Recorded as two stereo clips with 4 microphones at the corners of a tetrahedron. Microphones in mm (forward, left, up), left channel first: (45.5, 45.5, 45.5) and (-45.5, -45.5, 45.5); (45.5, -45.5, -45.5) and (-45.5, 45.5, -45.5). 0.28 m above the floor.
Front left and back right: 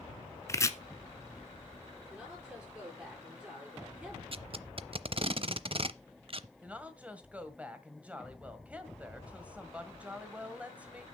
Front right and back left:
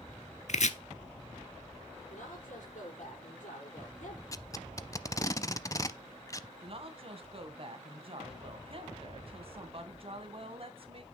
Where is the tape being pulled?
100° right, 0.5 m.